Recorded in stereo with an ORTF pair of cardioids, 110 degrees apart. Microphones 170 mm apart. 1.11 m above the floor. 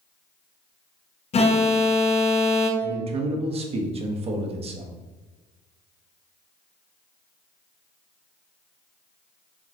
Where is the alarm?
40° left, 0.8 m.